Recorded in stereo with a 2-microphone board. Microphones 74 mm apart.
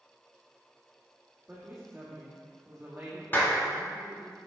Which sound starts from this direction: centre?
A woman speaking, at 1.5 s.